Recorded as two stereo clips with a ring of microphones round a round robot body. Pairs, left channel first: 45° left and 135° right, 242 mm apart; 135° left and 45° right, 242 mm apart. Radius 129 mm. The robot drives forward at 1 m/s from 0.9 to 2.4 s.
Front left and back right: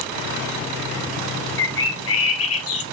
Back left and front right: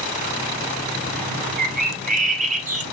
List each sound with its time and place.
1.6 s a bird: 10° left, 1.9 m; by 2.8 s 15° left, 1.1 m